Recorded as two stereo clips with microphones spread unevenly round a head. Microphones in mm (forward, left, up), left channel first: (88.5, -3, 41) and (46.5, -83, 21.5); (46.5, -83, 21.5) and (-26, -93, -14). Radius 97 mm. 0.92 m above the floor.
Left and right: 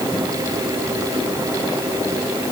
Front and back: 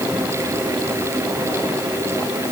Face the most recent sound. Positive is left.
No sound to turn to.